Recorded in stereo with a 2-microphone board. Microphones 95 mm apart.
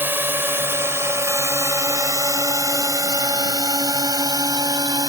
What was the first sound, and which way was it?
A drone, 20° right (ahead or behind).